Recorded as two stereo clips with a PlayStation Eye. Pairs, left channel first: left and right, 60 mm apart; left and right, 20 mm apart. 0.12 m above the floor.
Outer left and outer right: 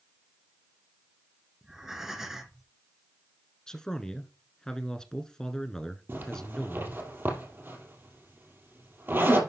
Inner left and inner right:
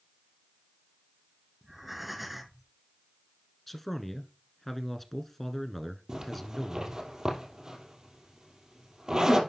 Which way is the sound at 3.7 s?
10° left (ahead or behind).